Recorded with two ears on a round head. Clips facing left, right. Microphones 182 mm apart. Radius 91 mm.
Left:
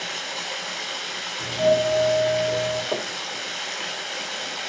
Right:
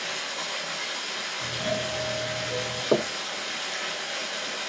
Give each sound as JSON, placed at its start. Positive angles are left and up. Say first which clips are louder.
{"t": 0.0, "sound": "running water", "louder": "left 2 dB", "side_deg": 75, "distance_m": 7.0}
{"t": 1.4, "sound": "a doorbell", "louder": "left 11 dB", "side_deg": 55, "distance_m": 7.0}
{"t": 2.9, "sound": "knocking", "louder": "right 5 dB", "side_deg": -40, "distance_m": 0.8}